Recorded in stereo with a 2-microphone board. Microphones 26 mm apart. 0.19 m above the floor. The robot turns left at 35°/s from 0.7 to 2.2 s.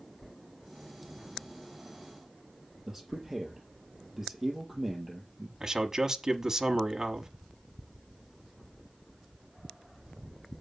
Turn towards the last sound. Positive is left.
turn(degrees=-25)  # may be behind; listen again after turning